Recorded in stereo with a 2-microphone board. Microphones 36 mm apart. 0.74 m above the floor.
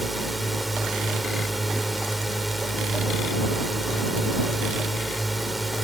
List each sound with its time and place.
0.0 s a drone: centre (ahead or behind)